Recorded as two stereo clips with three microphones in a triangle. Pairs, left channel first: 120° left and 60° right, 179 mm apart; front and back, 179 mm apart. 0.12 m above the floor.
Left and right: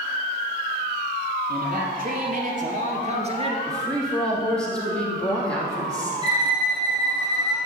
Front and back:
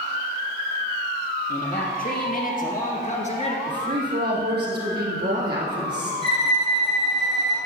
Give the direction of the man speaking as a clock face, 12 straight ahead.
1 o'clock.